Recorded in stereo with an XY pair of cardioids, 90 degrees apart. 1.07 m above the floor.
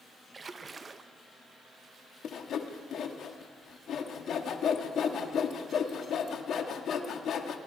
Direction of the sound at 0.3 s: 35° right.